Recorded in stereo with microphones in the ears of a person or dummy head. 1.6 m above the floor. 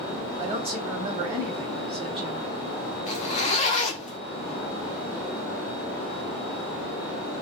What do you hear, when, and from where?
0.4 s a woman speaking: 30° right (ahead or behind), 1.4 m
3.1 s a zipper: 40° left (ahead or behind), 0.8 m